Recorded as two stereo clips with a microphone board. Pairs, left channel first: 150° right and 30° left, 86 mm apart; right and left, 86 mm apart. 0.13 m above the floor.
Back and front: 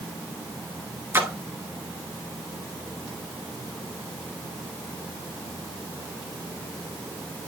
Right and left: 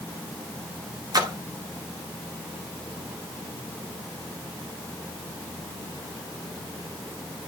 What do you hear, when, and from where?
1.1 s a splash: 85° left, 1.1 m